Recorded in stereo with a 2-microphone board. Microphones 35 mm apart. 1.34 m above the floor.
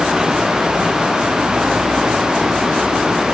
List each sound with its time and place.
Only background noise.